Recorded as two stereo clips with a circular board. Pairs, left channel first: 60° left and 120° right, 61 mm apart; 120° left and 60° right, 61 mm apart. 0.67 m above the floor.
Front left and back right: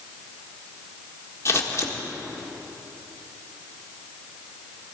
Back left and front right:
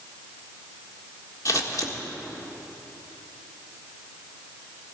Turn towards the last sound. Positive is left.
turn(degrees=95)